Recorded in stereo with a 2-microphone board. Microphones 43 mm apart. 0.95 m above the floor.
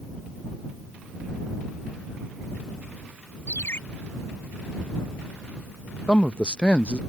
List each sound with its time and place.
3.5 s a ringtone: 60° left (ahead or behind)
6.1 s a man speaking: 25° left (ahead or behind)